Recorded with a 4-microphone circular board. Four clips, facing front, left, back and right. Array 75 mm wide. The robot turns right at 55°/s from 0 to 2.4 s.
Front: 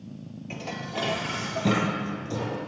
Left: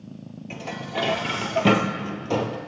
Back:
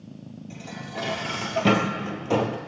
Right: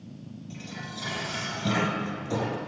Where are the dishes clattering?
50° left, 2.5 m; by 2.6 s 155° left, 2.5 m.